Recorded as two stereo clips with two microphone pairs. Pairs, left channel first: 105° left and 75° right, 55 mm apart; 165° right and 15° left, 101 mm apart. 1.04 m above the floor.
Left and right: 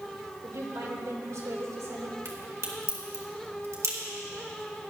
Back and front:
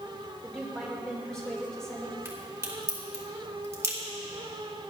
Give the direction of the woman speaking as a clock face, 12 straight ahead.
3 o'clock.